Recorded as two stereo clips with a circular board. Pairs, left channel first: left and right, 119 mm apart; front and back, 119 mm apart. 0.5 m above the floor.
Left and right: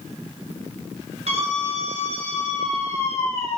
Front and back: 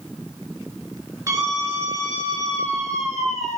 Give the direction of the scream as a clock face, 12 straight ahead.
4 o'clock.